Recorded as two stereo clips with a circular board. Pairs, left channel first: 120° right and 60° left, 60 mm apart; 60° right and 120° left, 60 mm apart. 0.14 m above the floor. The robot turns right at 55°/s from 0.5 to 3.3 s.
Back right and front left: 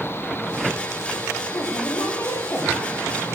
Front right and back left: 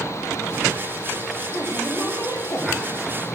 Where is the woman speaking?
125° right, 7 m; by 2.8 s 55° right, 7 m.